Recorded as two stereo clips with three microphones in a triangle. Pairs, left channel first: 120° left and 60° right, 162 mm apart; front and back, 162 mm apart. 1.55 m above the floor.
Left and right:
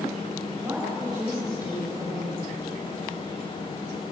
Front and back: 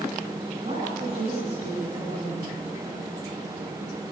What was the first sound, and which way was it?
A woman speaking, 130° right.